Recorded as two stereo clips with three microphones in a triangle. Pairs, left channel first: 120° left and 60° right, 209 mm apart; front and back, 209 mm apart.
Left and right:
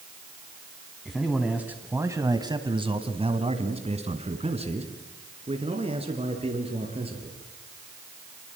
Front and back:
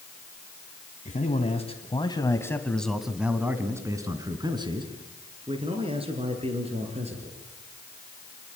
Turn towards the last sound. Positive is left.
turn(degrees=-120)